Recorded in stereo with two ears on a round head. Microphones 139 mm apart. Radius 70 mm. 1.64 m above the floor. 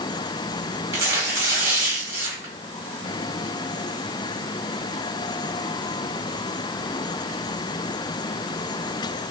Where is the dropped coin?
No dropped coin in this recording.